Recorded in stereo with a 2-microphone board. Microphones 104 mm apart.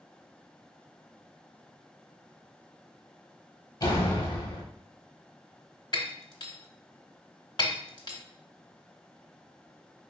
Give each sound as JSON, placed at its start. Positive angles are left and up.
{"t": 3.8, "sound": "a door slam", "side_deg": 40, "distance_m": 0.9}
{"t": 5.9, "sound": "breaking glass", "side_deg": 50, "distance_m": 0.7}